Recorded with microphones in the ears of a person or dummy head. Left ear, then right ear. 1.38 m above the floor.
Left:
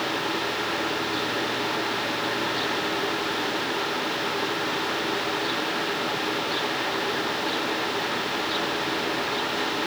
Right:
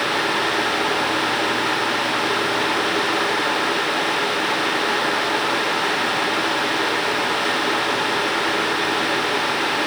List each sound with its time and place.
Only background noise.